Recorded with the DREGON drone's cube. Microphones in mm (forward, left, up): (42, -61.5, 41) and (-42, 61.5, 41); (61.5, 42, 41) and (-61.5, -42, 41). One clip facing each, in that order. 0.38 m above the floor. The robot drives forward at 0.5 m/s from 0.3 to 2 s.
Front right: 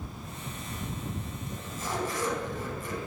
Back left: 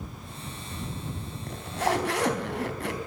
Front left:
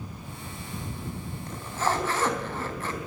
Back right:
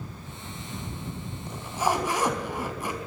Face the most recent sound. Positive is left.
turn(degrees=135)